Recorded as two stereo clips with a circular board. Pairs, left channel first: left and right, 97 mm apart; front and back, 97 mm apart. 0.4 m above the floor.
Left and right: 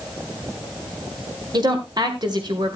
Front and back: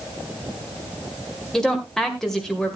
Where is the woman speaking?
80° right, 2.0 m.